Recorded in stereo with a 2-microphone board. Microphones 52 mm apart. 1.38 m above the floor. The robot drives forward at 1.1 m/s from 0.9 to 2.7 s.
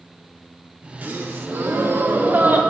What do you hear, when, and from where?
1.0 s a gasp: 40° right (ahead or behind), 1.4 m; by 2.6 s 35° right (ahead or behind), 1.5 m